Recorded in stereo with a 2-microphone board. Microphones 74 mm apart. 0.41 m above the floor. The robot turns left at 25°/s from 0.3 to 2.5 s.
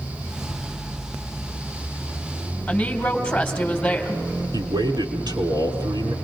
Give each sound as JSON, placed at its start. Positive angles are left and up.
{"t": 2.7, "sound": "a woman speaking", "side_deg": 10, "distance_m": 3.5}
{"t": 4.5, "sound": "a man speaking", "side_deg": -75, "distance_m": 4.5}